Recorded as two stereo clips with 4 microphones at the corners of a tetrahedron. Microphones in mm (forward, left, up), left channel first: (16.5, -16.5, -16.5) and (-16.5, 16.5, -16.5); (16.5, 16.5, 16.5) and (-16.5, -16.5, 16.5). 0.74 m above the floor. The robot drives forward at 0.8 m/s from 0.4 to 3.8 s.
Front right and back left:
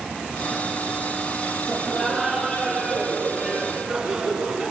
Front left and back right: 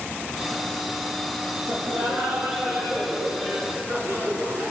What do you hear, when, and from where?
1.7 s laughter: 140° right, 3.5 m; by 4.7 s 155° right, 5 m